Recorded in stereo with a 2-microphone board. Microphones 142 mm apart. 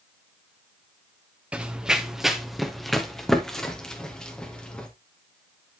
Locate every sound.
1.5 s running footsteps: 10° right (ahead or behind), 1.1 m; by 4.9 s 5° left (ahead or behind), 3 m